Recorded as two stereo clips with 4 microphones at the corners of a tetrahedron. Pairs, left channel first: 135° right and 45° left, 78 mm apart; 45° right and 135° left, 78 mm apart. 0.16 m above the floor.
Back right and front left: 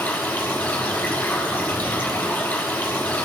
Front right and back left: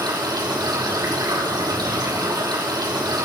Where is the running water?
165° left, 5 m.